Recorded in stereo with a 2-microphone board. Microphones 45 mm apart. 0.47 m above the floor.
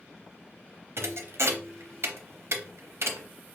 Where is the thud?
70° right (ahead or behind), 0.6 m.